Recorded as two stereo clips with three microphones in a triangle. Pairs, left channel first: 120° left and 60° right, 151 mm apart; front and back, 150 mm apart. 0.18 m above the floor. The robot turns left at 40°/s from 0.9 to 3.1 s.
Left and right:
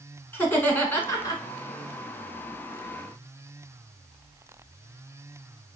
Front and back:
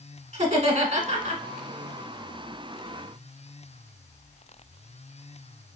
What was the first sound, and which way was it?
Laughter, 165° right.